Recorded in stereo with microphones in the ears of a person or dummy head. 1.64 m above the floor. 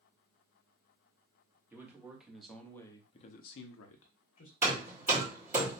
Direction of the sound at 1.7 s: 15° right (ahead or behind).